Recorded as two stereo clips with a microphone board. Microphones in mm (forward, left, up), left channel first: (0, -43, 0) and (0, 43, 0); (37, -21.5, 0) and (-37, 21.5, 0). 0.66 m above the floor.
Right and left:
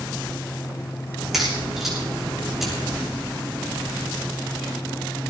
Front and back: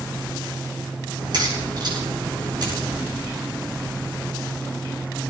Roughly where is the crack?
Behind.